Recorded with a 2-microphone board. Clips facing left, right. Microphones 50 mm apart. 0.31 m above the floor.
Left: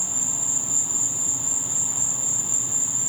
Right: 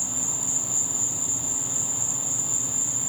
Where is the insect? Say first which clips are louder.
Even; 5° left (ahead or behind), 1.0 m.